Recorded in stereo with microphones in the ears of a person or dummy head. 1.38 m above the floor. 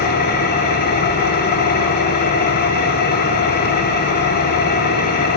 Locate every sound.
0.0 s an engine running: 50° left (ahead or behind), 0.8 m